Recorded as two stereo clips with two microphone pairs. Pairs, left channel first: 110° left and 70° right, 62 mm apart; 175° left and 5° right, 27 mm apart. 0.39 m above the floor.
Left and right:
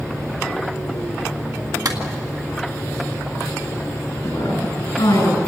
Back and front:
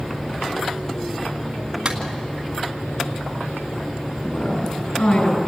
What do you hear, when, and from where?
1.9 s a clap: 65° right, 2.5 m
4.2 s a woman speaking: 135° left, 7 m